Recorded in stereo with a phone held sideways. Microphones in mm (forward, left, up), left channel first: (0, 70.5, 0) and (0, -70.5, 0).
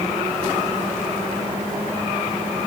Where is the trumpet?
I don't hear a trumpet.